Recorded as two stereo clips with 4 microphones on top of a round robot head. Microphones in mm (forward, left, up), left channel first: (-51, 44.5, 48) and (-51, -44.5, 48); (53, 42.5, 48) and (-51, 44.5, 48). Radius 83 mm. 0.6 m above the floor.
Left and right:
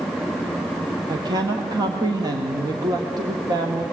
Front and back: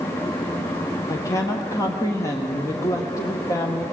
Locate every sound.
1.1 s a woman speaking: 55° right, 1.4 m